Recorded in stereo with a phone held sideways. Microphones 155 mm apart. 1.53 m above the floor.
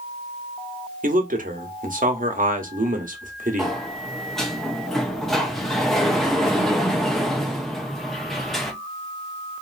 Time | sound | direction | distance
1.0 | a man speaking | 60° right (ahead or behind) | 0.9 m
3.6 | a sliding door | centre (ahead or behind) | 0.7 m